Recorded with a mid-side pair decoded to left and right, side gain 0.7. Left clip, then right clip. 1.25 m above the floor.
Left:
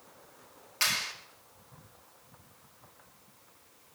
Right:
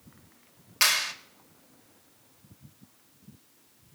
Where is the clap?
30° right, 4 m.